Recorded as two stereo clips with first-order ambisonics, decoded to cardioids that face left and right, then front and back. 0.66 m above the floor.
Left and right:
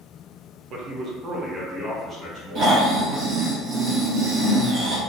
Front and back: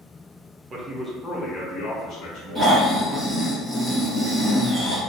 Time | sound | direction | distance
0.7 | a man speaking | 125° right | 0.6 m
2.5 | snoring | 90° right | 1.1 m